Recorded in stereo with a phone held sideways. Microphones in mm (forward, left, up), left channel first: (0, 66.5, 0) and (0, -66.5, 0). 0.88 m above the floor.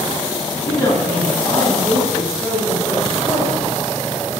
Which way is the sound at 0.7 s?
20° left (ahead or behind).